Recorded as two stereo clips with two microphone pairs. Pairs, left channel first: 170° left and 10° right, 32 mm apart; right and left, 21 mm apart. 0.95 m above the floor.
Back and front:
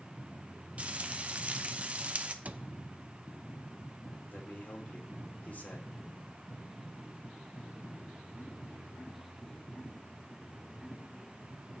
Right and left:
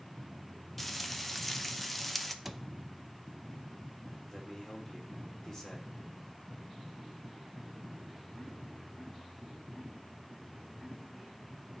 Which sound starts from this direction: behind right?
A man speaking, at 4.3 s.